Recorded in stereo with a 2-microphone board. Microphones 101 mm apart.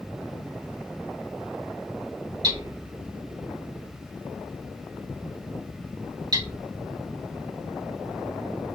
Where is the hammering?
45° right (ahead or behind), 1.7 m.